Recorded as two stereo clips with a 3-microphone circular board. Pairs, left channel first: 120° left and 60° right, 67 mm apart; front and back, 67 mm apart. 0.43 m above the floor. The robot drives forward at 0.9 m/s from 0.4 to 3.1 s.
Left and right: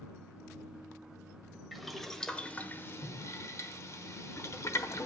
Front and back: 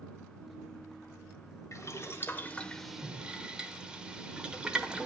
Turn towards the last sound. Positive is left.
turn(degrees=105)